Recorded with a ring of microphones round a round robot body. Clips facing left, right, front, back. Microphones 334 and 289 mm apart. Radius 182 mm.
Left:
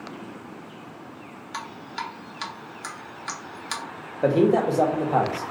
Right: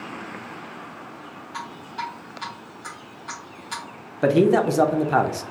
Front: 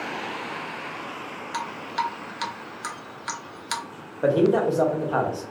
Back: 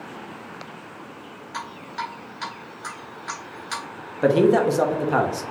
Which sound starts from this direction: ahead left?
Dripping, at 1.5 s.